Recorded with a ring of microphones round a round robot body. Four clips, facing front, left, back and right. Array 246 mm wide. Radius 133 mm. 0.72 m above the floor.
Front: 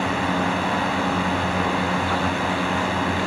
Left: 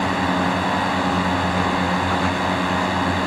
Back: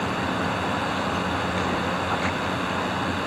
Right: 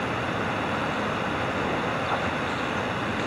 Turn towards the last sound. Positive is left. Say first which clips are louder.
# left 8 dB, front 3 dB
turn(degrees=65)